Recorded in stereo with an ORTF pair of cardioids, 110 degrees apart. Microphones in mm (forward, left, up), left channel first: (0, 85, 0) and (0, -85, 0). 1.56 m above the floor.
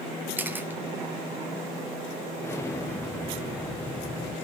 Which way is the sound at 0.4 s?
10° right.